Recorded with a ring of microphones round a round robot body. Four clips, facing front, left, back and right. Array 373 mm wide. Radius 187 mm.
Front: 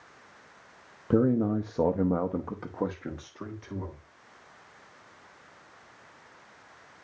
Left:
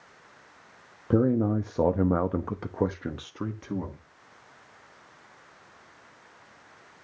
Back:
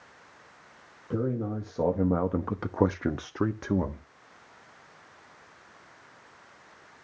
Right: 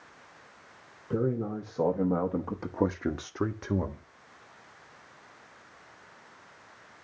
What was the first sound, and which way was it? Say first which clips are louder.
A man speaking: left 6 dB, front 6 dB; 50° left.